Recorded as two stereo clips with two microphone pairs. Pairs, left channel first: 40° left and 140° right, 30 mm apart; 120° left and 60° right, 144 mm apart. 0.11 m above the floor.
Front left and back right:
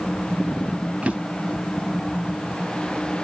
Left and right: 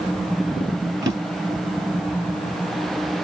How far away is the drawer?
About 1.1 m.